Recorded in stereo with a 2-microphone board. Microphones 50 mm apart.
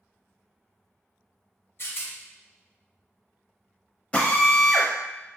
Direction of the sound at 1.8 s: 55° left (ahead or behind).